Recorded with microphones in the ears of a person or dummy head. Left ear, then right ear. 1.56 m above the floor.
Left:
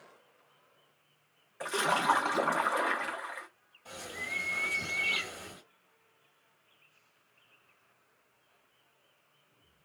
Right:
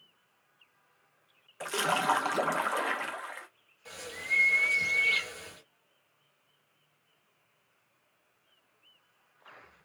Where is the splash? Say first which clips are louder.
Even; 10° right (ahead or behind), 0.5 m.